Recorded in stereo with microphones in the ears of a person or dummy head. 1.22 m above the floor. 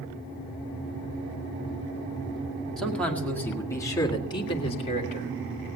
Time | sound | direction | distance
2.8 | a man speaking | centre (ahead or behind) | 2 m